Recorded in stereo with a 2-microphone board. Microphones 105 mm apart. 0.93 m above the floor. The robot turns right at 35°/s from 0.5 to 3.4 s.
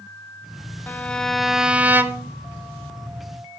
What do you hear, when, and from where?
0.9 s a violin: 160° left, 1.3 m; by 2.3 s 150° right, 1.3 m